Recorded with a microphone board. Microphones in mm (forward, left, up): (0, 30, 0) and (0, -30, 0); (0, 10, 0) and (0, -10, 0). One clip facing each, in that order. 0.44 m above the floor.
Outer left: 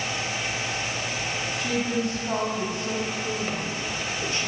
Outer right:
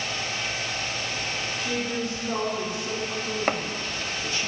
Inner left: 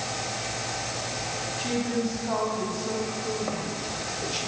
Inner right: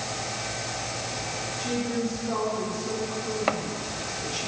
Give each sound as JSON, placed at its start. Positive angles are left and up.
{"t": 1.6, "sound": "a woman speaking", "side_deg": 70, "distance_m": 3.5}
{"t": 3.5, "sound": "chopping", "side_deg": -70, "distance_m": 0.6}